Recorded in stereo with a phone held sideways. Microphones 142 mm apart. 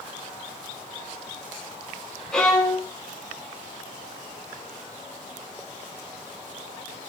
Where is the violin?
5° left (ahead or behind), 0.7 m.